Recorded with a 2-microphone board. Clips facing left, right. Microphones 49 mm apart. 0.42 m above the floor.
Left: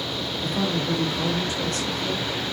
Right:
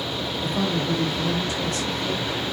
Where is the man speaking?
5° right (ahead or behind), 1.0 m; by 2.3 s 65° left (ahead or behind), 1.8 m.